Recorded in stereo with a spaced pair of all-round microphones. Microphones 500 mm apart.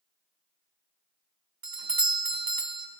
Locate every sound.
1.6 s a doorbell: 40° right (ahead or behind), 0.9 m